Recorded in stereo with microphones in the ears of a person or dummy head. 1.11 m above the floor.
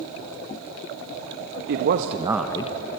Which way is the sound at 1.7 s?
65° right (ahead or behind).